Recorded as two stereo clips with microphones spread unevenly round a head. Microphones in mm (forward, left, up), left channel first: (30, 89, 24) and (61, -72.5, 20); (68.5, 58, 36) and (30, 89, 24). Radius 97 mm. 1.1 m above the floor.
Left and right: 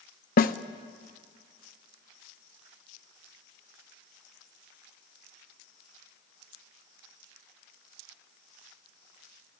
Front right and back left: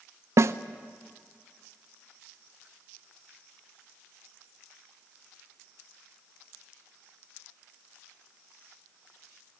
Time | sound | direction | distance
0.4 | a snare drum | 140° left | 0.6 m